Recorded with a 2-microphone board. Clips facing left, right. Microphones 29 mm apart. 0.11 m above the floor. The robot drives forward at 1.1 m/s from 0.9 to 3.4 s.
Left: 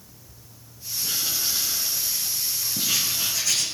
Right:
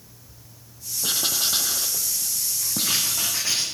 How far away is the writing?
About 1.5 m.